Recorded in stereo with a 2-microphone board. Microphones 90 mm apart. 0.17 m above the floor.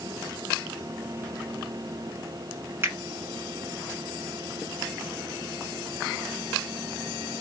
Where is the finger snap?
25° right (ahead or behind), 1.9 m.